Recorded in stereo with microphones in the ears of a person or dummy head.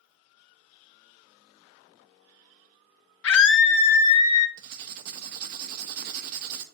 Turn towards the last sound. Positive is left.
turn(degrees=-50)  # may be behind; listen again after turning